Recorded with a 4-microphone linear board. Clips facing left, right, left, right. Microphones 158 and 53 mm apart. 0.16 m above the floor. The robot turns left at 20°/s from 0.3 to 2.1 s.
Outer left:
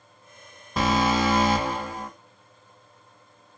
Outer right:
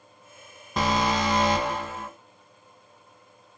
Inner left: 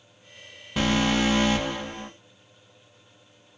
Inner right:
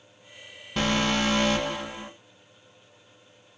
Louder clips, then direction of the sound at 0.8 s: Outer left 2 dB, inner left 2 dB; centre (ahead or behind).